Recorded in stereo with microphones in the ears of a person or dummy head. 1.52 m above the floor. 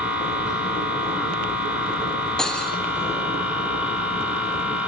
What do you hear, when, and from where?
0.0 s a machine running: 5° left (ahead or behind), 5 m
2.4 s cutlery clinking: 15° left (ahead or behind), 1.4 m